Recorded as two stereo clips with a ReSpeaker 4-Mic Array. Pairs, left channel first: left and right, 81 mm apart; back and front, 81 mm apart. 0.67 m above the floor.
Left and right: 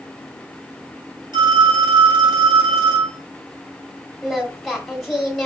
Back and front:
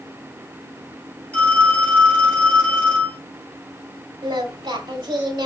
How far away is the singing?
About 1.3 m.